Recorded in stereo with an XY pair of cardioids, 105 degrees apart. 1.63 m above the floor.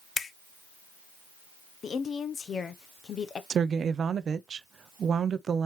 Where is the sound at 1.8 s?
45° left, 0.9 m.